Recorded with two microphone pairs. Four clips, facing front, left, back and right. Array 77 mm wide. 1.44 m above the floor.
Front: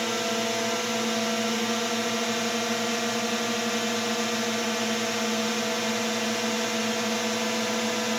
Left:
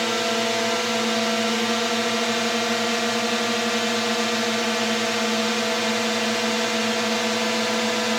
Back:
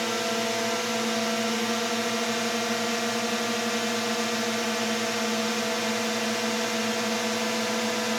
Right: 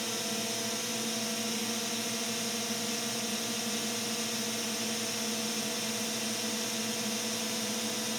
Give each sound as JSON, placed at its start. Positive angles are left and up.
{"t": 0.0, "sound": "a drone", "azimuth_deg": 95}